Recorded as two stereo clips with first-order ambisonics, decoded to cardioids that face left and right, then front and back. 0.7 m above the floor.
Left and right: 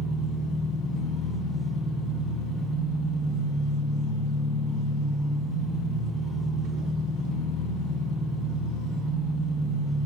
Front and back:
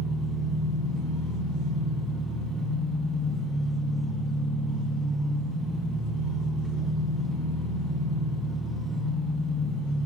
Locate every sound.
0.0 s an engine running: 115° left, 1.9 m